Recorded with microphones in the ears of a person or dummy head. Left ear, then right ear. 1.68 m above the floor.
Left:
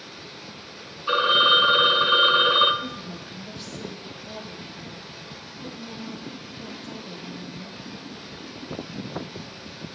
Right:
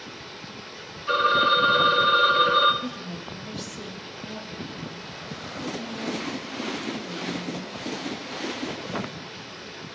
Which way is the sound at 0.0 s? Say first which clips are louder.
Right 1 dB; 35° right (ahead or behind).